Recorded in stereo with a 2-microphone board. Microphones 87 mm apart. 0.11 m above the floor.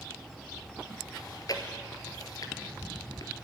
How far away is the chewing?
About 2 m.